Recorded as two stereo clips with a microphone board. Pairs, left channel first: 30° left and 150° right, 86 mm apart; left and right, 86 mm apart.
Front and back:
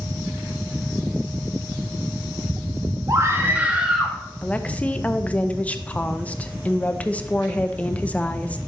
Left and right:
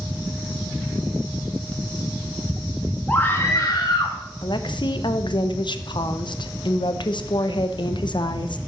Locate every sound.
3.1 s a scream: 160° left, 1.8 m; by 4.2 s 120° left, 2 m
4.4 s a woman speaking: 100° left, 0.7 m